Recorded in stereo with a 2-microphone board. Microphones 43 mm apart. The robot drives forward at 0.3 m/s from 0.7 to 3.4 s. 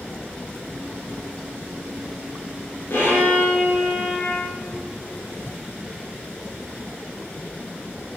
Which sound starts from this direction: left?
A violin, at 2.9 s.